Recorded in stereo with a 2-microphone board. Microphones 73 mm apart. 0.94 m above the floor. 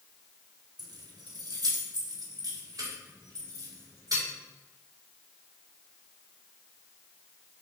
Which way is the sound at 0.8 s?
75° right (ahead or behind).